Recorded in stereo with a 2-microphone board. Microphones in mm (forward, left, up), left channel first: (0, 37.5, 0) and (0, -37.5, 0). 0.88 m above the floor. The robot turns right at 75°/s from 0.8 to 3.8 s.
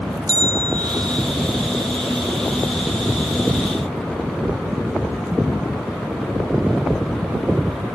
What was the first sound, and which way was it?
A bell, 115° right.